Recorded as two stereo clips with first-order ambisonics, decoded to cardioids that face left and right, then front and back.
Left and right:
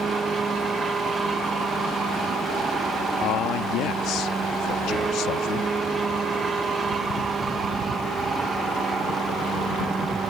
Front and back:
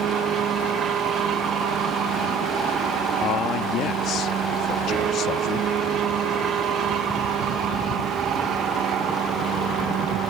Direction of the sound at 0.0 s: 150° right.